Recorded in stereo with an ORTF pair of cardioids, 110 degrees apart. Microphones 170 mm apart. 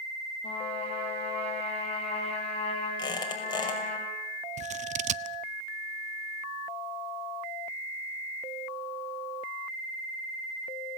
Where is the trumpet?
40° left, 7.5 m.